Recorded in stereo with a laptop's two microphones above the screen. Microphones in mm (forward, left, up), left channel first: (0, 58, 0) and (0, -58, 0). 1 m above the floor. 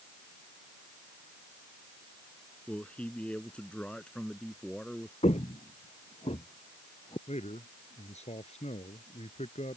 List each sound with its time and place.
2.7 s a man speaking: 10° left (ahead or behind); by 5.1 s 5° left (ahead or behind)
5.2 s footsteps: 65° left (ahead or behind); by 7.2 s 50° left (ahead or behind)
7.3 s a man speaking: 65° left (ahead or behind)